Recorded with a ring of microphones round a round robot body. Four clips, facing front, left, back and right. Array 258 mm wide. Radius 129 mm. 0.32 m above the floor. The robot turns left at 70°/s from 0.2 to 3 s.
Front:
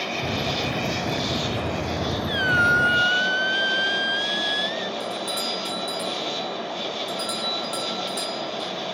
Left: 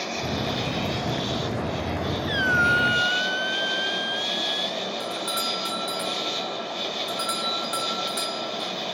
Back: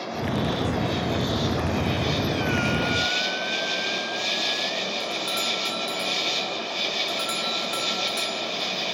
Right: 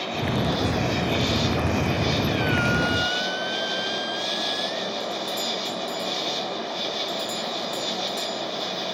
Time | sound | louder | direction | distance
0.0 | an insect | right 3 dB, even | 20° left | ?
2.3 | a squeak | left 1 dB, front 4 dB | 60° left | ?
5.0 | a doorbell | right 1 dB, front 1 dB | 105° left | ?